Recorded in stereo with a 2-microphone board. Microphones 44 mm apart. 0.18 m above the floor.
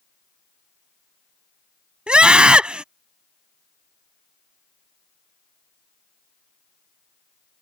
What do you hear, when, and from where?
2.1 s a scream: 20° right (ahead or behind)